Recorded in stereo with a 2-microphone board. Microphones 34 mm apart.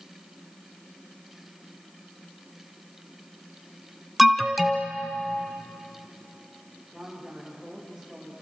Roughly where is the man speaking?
Centre.